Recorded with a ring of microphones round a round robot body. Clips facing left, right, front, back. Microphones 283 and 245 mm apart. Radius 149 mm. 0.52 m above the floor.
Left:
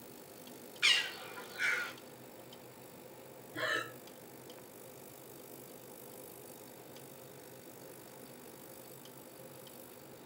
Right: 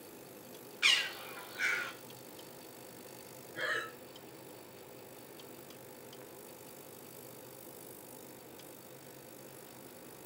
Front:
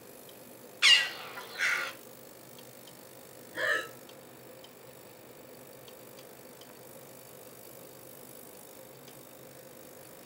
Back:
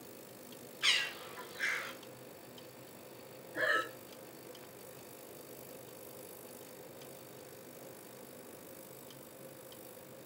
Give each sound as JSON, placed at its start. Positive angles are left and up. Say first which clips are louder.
{"t": 0.8, "sound": "a bird", "louder": "right 1 dB, front 3 dB", "azimuth_deg": 0, "distance_m": 0.8}
{"t": 3.5, "sound": "breathing", "louder": "left 1 dB, front 1 dB", "azimuth_deg": 50, "distance_m": 2.5}